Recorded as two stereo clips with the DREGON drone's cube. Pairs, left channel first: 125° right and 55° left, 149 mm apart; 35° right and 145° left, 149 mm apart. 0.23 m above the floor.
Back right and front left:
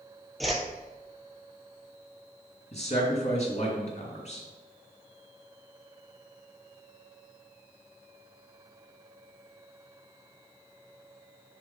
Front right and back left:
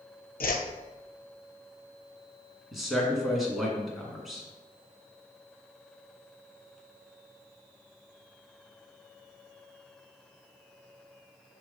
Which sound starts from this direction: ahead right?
A whoosh, at 0.4 s.